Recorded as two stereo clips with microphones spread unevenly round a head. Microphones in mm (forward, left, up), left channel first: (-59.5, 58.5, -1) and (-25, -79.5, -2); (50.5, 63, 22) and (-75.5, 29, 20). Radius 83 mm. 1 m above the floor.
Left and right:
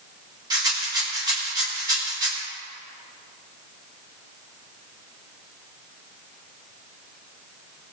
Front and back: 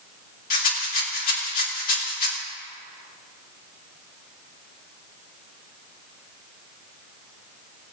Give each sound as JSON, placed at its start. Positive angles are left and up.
{"t": 0.5, "sound": "a rattle", "azimuth_deg": -10, "distance_m": 2.5}